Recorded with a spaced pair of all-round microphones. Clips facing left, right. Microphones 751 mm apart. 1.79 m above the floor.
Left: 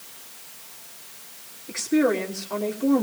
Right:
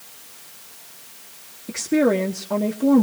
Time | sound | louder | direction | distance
1.7 | a woman speaking | right 2 dB | 60° right (ahead or behind) | 1.5 m